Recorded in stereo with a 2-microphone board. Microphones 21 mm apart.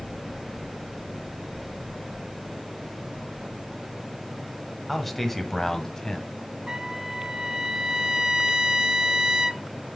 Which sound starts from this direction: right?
A trumpet, at 6.7 s.